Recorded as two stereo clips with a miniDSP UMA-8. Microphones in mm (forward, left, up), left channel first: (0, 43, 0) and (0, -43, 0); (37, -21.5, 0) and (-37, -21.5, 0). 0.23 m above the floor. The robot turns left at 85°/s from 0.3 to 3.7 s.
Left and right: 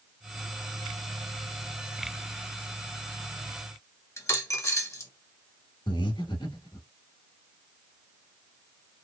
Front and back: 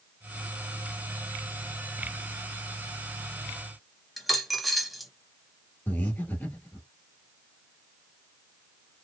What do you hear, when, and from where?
4.2 s a dropped coin: 90° left, 0.6 m
5.9 s breathing: 65° left, 0.9 m